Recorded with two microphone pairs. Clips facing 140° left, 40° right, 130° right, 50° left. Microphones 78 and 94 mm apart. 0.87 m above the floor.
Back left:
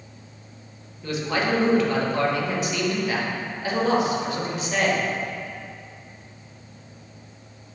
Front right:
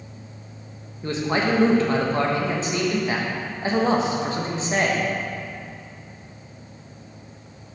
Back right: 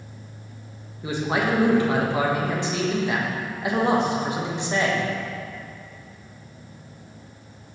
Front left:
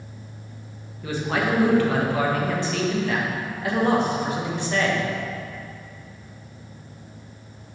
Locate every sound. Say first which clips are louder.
1.0 s a man speaking: front right 2 dB, back right 1 dB; 70° right, 1.0 m